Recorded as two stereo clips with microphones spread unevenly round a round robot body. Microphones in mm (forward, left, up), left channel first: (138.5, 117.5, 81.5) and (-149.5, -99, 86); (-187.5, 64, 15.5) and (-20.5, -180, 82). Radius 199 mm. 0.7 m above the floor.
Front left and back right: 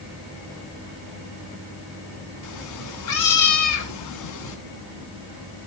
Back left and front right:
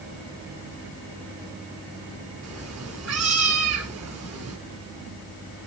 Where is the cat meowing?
20° left, 0.7 m.